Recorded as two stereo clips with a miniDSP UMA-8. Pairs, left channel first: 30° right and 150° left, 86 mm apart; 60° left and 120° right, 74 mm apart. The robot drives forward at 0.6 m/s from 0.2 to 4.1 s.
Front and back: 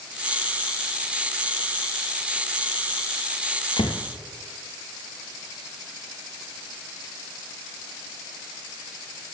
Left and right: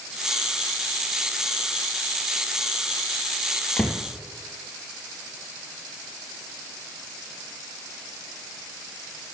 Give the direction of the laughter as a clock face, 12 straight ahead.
No laughter in this recording.